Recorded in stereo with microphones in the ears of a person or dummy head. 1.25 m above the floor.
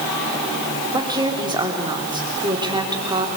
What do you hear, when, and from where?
0.9 s a woman speaking: 15° right (ahead or behind), 3 m